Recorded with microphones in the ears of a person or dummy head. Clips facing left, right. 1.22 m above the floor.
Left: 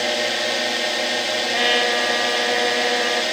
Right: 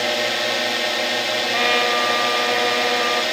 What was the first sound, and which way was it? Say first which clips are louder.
A drone: even; centre (ahead or behind).